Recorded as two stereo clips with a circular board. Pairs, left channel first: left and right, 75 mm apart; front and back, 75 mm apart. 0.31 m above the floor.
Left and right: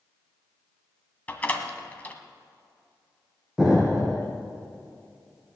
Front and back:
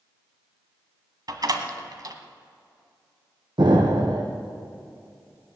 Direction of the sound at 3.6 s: 170° right.